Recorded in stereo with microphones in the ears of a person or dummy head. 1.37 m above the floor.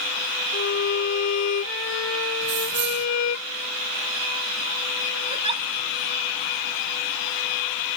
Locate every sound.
0.5 s a violin: 80° left
2.4 s keys jangling: 60° right (ahead or behind)
5.3 s a giggle: 25° right (ahead or behind)